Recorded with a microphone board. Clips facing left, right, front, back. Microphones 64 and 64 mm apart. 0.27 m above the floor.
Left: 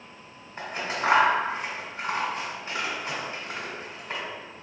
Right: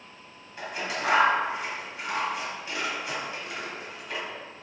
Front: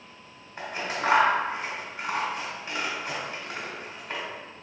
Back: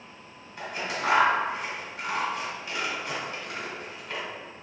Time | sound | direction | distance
0.6 | scissors | 45° left | 1.4 m